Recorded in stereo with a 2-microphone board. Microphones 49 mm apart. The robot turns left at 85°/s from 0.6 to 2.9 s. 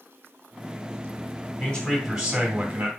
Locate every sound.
1.6 s a man speaking: 40° left, 2.0 m; by 2.9 s 70° right, 2.0 m